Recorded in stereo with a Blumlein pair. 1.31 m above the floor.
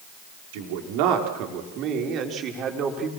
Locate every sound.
0.5 s a man speaking: 50° right, 3 m; by 3.1 s 25° right, 3.5 m